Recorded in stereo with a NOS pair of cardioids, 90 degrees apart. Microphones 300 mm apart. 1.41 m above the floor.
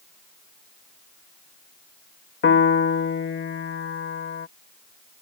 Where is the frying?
I don't hear frying.